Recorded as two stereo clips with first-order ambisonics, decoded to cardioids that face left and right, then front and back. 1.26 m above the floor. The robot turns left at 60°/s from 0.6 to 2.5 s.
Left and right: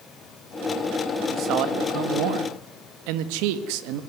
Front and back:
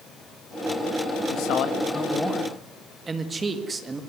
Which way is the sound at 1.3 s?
30° right.